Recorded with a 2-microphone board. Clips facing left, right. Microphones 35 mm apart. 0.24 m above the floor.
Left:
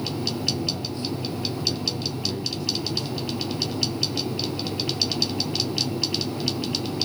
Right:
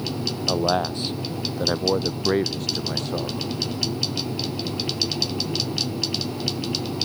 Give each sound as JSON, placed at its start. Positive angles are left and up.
{"t": 0.5, "sound": "a man speaking", "side_deg": -70}